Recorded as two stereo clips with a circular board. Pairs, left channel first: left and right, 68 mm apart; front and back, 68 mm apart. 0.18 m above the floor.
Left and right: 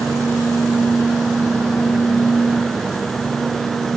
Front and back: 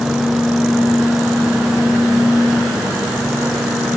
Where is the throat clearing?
I don't hear throat clearing.